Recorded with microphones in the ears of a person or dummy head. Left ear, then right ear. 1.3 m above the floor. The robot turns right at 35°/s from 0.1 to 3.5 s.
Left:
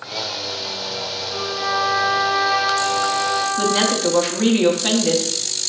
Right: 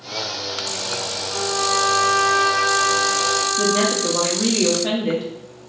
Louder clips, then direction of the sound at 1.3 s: Right 2 dB; 150° left.